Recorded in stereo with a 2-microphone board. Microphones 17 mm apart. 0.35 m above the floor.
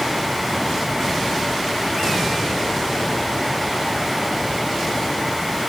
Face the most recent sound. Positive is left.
No sound to turn to.